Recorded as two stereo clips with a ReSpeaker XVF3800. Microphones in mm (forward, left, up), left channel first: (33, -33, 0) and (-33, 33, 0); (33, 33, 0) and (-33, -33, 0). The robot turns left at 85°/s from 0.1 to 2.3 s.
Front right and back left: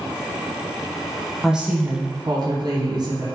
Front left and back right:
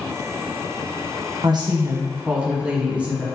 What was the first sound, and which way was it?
A woman speaking, 135° right.